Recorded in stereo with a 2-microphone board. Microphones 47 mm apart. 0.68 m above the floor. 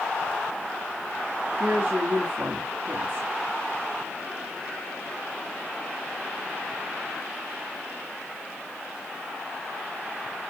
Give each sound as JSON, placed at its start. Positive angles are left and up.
{"t": 1.6, "sound": "a woman speaking", "side_deg": -50, "distance_m": 1.4}